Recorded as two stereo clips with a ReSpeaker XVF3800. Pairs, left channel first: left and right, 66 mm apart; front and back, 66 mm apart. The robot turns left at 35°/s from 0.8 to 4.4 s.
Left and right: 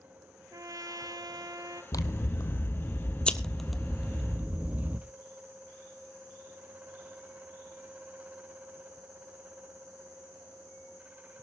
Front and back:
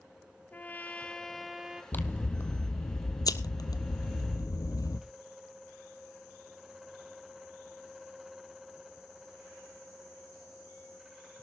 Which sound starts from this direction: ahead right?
A trumpet, at 0.5 s.